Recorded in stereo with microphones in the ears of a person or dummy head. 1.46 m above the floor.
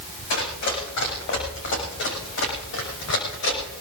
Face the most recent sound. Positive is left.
turn(degrees=75)  # may be behind; listen again after turning